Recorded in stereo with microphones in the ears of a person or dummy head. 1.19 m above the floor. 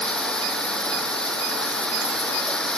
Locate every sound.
0.0 s running water: 10° left (ahead or behind)